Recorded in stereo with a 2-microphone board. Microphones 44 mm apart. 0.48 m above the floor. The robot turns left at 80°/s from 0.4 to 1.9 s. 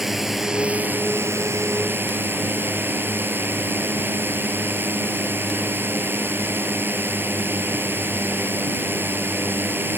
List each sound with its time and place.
0.0 s a drone: 5° right; by 10.0 s 125° right